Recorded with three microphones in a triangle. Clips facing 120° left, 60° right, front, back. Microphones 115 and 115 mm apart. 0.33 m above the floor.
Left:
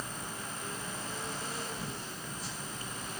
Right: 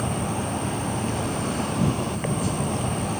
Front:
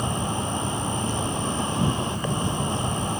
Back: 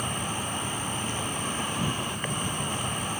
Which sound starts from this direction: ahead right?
An insect, at 0.0 s.